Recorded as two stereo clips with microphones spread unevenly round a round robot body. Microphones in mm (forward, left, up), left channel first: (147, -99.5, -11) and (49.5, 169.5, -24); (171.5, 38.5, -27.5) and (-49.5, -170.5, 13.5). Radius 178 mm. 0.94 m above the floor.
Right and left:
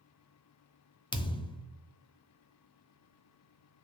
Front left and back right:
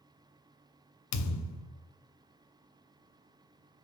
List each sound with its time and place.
1.1 s a thud: 5° left, 0.7 m